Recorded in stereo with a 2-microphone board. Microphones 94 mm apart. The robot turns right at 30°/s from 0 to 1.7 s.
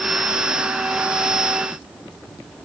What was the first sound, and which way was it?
Only background noise.